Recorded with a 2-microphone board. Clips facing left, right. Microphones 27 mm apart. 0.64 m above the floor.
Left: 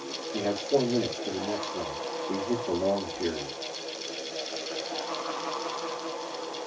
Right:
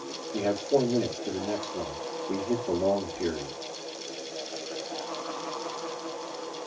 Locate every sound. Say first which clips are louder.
0.3 s a man speaking: right 1 dB; 5° right (ahead or behind), 1.3 m